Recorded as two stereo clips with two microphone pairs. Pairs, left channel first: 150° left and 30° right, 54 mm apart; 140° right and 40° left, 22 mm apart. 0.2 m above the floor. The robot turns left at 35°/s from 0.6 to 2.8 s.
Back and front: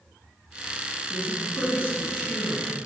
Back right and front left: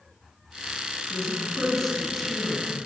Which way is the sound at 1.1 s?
170° left.